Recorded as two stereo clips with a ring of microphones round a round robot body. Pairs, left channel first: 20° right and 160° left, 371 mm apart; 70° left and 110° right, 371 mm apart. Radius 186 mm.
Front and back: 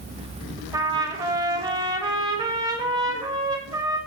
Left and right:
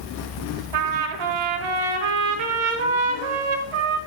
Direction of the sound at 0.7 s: 125° right.